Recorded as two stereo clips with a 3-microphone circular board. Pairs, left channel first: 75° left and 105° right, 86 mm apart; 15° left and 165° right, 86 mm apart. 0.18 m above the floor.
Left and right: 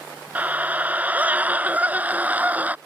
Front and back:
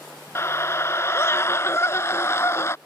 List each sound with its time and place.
0.3 s a scream: 35° right